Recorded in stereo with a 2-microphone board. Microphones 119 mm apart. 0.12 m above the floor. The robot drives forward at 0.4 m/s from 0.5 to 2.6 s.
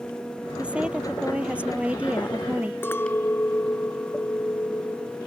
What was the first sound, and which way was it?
A woman speaking, 10° right (ahead or behind).